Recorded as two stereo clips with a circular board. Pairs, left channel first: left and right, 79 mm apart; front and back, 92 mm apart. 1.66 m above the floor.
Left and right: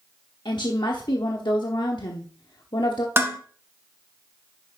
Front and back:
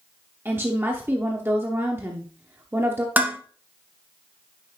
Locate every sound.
0.5 s a woman speaking: 115° left, 0.8 m
3.2 s dishes clattering: 125° right, 1.0 m